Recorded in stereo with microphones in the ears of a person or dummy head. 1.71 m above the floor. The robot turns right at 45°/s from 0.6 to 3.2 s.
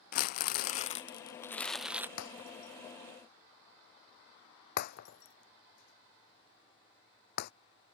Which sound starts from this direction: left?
Breaking glass, at 2.2 s.